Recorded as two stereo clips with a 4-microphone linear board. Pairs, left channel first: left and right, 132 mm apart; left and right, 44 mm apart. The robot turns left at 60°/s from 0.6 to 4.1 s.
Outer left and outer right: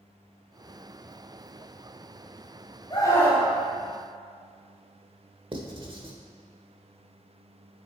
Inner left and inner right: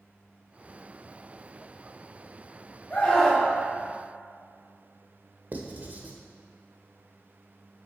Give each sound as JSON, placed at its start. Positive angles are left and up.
{"t": 2.9, "sound": "a scream", "azimuth_deg": 35, "distance_m": 3.5}
{"t": 5.5, "sound": "writing", "side_deg": -40, "distance_m": 1.3}